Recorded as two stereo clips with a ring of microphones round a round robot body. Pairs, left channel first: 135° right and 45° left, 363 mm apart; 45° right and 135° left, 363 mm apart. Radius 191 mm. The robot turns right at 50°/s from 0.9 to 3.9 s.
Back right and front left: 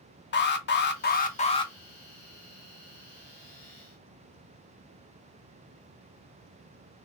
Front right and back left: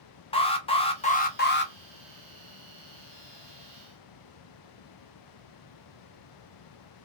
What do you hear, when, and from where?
0.3 s an alarm: 105° right, 0.7 m; by 1.7 s 65° right, 0.7 m